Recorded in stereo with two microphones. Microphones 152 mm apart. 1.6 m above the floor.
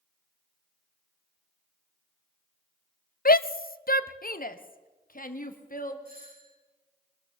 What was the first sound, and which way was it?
A shout, 70° left (ahead or behind).